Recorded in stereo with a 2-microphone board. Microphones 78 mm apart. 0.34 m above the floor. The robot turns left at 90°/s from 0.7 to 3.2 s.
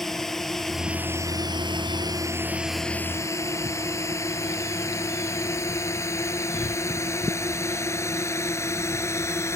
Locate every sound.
0.0 s a drone: 5° left (ahead or behind); by 9.6 s 40° left (ahead or behind)